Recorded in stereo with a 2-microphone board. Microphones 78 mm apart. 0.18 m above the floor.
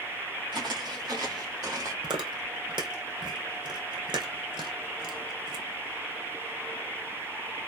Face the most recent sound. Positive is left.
turn(degrees=-85)